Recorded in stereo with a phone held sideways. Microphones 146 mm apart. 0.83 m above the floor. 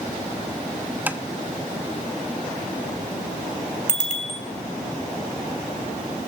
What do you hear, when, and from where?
1.1 s tapping: 10° right (ahead or behind), 0.8 m
3.9 s a bicycle bell: 60° left (ahead or behind), 4 m